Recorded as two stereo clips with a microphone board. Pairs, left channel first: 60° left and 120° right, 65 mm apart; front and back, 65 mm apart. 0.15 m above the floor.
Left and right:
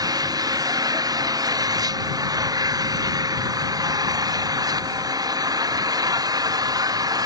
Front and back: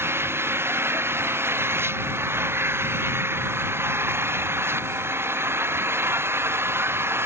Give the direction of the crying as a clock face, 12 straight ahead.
I don't hear crying.